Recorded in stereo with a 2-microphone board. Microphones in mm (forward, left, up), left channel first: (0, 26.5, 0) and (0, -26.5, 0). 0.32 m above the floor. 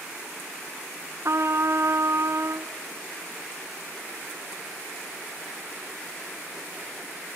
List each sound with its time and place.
1.2 s a trumpet: 60° right (ahead or behind), 0.6 m